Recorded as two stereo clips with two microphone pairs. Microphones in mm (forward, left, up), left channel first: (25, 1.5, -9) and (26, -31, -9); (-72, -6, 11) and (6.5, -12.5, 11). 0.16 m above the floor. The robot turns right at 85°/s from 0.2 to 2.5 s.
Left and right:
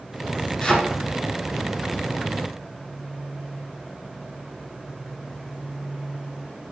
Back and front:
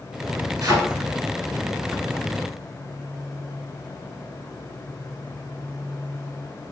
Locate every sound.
0.6 s a thud: 20° left, 1.0 m; by 0.8 s 30° left, 1.0 m